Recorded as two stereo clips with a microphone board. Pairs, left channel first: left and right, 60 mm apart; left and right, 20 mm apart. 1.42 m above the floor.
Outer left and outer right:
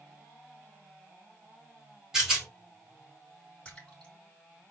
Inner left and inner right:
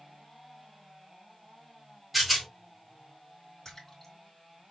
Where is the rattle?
10° right (ahead or behind), 3 m.